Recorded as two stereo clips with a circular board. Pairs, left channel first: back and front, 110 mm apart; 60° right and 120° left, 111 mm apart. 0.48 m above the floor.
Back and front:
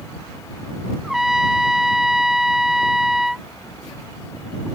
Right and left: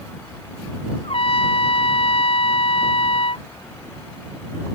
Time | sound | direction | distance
1.0 | a trumpet | 85° right | ?